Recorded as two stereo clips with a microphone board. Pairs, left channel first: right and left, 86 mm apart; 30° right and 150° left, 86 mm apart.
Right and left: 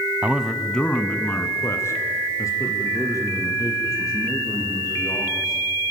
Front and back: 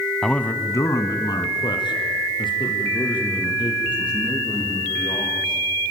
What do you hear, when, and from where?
0.2 s a man speaking: 45° left, 1.1 m; by 5.6 s 45° right, 7 m